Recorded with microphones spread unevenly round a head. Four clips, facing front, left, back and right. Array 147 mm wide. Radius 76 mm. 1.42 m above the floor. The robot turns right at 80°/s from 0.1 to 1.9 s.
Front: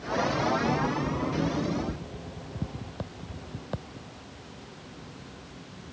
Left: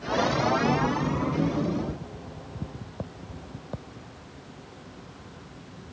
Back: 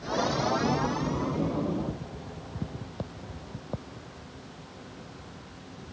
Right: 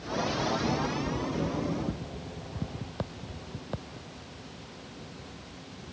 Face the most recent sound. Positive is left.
No sound to turn to.